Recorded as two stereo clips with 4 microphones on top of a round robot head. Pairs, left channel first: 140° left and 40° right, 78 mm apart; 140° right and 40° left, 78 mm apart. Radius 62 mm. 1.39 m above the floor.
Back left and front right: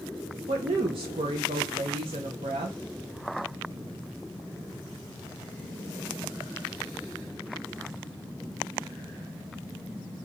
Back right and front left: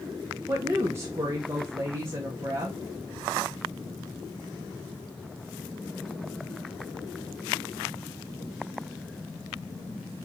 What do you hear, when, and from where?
0.5 s a woman speaking: 20° right, 0.7 m